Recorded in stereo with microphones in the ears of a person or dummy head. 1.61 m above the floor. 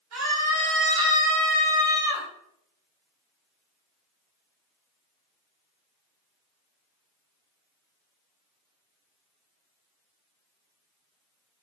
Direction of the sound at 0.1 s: 80° right.